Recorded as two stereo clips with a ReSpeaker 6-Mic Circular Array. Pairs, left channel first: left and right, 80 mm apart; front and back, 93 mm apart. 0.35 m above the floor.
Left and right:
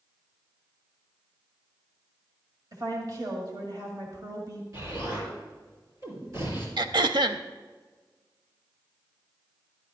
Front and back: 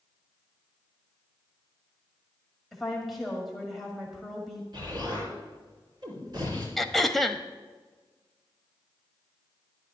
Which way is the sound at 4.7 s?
135° right.